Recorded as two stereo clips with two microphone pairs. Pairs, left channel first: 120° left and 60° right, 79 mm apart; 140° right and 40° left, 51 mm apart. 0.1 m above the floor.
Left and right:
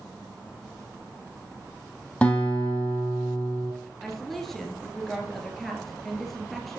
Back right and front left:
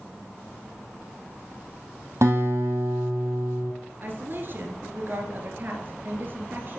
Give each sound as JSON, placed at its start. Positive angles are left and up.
{"t": 2.2, "sound": "a guitar", "azimuth_deg": 50, "distance_m": 2.0}
{"t": 4.0, "sound": "a woman speaking", "azimuth_deg": 35, "distance_m": 1.8}